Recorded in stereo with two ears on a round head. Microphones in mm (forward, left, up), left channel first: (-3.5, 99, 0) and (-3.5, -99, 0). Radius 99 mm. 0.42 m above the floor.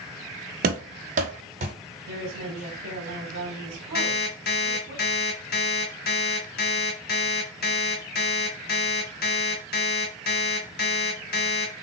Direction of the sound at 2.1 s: 50° right (ahead or behind).